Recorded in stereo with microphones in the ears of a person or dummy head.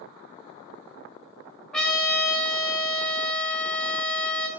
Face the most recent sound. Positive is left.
turn(degrees=0)  # may be behind; listen again after turning